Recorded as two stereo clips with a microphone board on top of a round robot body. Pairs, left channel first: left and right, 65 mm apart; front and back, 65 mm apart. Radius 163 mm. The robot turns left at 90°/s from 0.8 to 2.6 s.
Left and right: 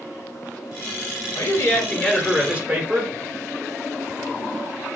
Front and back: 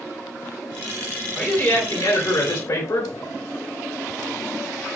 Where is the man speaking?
90° left, 2.5 m; by 3.1 s 25° right, 2.5 m.